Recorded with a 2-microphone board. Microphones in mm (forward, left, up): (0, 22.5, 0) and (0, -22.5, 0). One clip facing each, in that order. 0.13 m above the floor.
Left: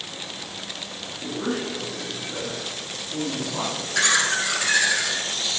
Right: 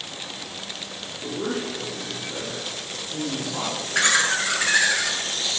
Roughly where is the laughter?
Right.